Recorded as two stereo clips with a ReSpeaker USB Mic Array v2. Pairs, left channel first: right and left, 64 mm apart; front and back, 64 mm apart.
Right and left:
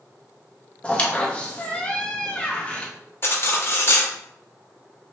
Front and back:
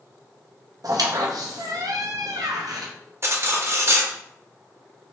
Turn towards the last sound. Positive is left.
turn(degrees=-140)